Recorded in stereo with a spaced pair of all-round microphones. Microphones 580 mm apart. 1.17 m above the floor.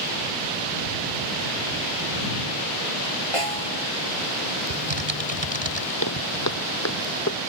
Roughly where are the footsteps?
Left.